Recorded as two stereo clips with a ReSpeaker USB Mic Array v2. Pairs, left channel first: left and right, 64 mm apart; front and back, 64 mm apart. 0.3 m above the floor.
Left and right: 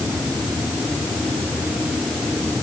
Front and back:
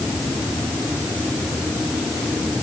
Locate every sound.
Only background noise.